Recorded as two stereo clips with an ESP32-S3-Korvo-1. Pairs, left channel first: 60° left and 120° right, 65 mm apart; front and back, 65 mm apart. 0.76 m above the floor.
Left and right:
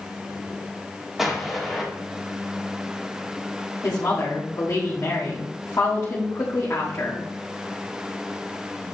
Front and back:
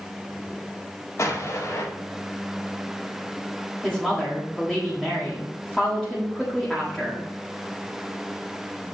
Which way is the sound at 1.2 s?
35° right.